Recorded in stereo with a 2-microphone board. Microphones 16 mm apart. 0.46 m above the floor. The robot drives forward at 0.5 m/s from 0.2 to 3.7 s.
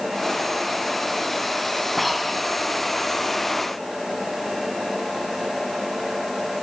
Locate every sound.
2.0 s breathing: centre (ahead or behind), 1.2 m